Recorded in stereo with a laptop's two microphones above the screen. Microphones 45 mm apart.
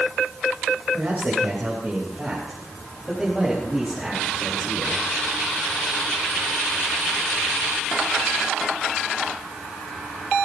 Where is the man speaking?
45° right (ahead or behind), 4 m; by 5.0 s 5° left (ahead or behind), 6.5 m.